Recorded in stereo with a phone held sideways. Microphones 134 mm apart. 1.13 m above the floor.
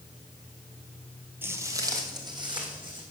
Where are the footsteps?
15° right (ahead or behind), 1.2 m; by 3.0 s 35° right (ahead or behind), 3 m.